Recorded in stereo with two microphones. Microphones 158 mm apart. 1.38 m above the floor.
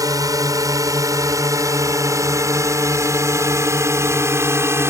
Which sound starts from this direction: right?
A drone, at 0.0 s.